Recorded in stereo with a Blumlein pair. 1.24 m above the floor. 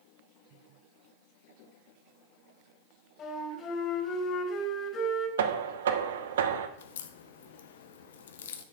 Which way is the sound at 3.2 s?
30° left.